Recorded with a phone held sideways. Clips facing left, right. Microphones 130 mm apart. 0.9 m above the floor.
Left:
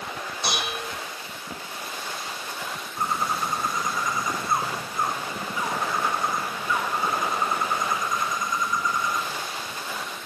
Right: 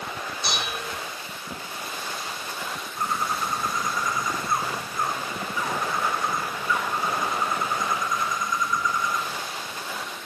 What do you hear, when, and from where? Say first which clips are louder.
0.4 s dishes clattering: left 2 dB; 80° left, 3.5 m
3.0 s a bird: left 1 dB; 25° left (ahead or behind), 1.0 m